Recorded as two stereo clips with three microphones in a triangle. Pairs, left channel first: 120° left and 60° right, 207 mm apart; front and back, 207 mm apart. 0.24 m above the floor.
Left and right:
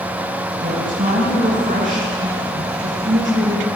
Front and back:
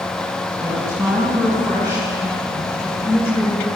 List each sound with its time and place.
0.6 s a woman speaking: 110° right, 3.5 m